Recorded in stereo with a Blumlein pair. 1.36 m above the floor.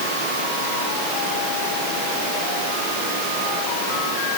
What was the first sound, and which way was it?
Only background noise.